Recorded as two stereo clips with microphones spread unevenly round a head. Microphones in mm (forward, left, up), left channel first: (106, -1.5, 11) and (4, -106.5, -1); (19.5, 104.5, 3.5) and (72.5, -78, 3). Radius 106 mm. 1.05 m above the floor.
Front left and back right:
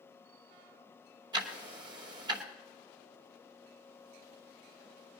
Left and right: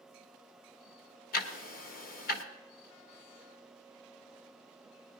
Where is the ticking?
155° left, 0.9 m.